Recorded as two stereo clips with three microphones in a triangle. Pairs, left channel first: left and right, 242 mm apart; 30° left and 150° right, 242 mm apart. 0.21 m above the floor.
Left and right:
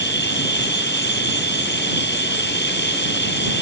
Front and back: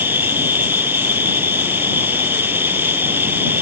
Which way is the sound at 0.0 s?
130° left.